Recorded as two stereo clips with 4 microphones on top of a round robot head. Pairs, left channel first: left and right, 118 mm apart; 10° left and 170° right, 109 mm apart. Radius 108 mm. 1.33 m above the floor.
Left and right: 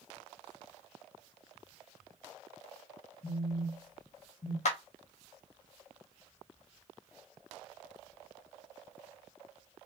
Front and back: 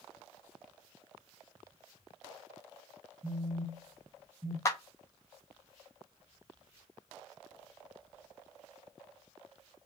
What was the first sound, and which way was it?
A phone buzzing, 120° left.